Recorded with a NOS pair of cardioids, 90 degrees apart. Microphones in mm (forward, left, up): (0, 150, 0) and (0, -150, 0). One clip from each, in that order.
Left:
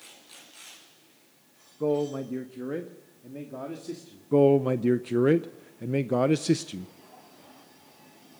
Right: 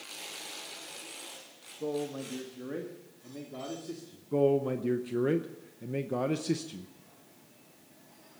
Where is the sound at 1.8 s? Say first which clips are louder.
Left 8 dB; 45° left, 0.9 m; by 4.3 s 25° left, 2.5 m.